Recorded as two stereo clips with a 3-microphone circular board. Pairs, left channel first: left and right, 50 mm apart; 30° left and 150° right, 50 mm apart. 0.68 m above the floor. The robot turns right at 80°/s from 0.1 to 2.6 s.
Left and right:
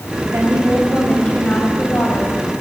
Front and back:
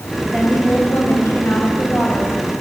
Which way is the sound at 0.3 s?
65° right.